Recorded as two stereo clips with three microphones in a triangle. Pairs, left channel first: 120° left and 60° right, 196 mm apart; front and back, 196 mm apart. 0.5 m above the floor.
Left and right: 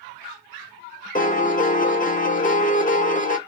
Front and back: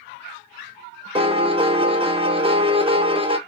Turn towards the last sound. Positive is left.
turn(degrees=130)